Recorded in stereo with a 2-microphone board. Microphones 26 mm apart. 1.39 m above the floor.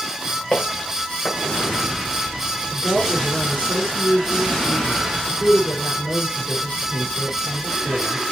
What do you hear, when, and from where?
0.5 s footsteps: 65° left (ahead or behind), 5 m
2.7 s a woman speaking: 55° left (ahead or behind), 5 m